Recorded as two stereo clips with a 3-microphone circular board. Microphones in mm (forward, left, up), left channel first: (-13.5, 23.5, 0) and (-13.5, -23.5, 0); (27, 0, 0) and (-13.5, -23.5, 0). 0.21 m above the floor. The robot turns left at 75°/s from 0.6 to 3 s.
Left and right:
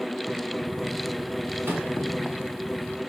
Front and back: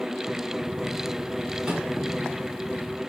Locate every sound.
1.6 s a microwave: 75° right, 1.6 m; by 1.9 s 95° right, 1.6 m